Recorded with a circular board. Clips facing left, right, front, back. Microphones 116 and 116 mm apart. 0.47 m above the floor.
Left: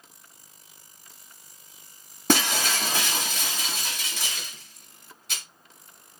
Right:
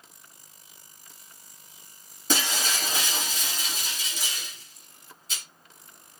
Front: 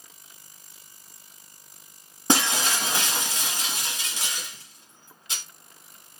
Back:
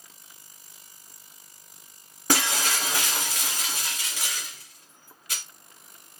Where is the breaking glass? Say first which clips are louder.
Left 5 dB, front 2 dB; 65° left, 1.1 m.